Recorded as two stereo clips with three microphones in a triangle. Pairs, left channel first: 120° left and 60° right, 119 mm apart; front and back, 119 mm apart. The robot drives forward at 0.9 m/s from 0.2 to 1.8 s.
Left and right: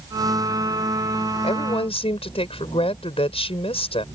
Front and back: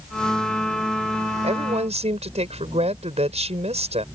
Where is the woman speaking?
155° left.